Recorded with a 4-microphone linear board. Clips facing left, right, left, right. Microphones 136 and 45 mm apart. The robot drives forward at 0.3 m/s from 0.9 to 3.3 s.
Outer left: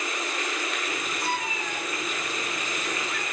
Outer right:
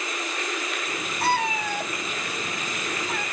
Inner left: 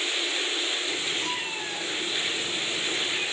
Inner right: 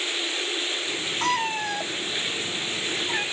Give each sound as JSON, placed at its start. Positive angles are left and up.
{"t": 1.2, "sound": "a cat meowing", "side_deg": -75, "distance_m": 0.7}